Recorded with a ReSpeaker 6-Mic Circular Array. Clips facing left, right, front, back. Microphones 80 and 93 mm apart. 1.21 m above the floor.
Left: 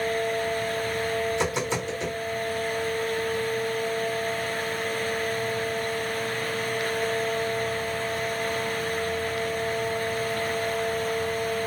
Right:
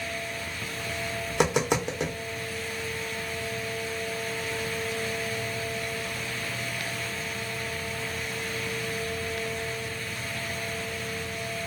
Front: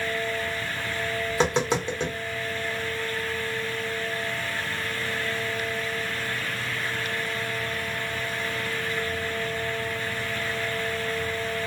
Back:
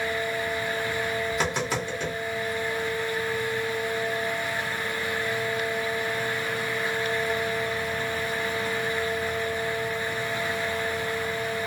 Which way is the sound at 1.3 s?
65° right.